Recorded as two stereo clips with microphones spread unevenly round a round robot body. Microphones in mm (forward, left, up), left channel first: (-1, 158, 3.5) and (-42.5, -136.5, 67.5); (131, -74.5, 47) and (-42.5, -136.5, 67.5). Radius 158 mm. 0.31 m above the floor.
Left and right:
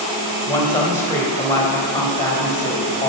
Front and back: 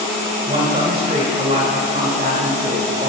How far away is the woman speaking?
About 1.7 m.